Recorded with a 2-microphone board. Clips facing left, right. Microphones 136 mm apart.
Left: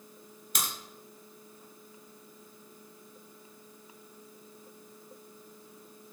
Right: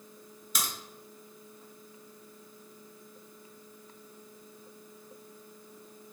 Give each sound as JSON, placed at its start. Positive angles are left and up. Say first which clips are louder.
{"t": 0.6, "sound": "a crack", "louder": "even", "side_deg": 55, "distance_m": 2.0}